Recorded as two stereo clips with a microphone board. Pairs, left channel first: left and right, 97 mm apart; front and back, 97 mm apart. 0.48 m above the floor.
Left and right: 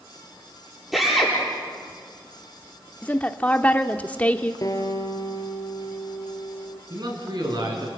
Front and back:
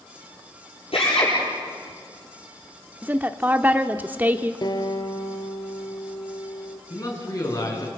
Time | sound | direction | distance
0.9 | a drill | straight ahead | 9 m
3.0 | a woman speaking | 140° left | 0.9 m
4.6 | a guitar | 40° left | 3 m
6.9 | a man speaking | 50° right | 6.5 m